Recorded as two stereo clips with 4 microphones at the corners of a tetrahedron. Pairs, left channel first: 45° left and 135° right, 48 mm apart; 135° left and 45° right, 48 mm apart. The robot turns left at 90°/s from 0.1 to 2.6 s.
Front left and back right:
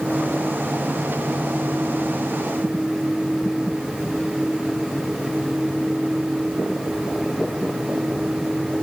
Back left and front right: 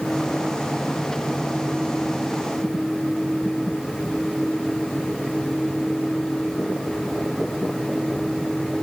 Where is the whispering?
I don't hear whispering.